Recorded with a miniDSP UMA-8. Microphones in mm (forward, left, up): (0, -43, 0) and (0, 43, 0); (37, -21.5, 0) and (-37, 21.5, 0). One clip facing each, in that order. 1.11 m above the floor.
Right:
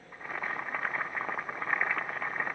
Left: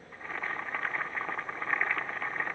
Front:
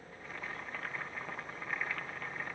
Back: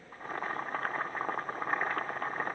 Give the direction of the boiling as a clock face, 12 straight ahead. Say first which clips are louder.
Right 1 dB, back 9 dB; 6 o'clock.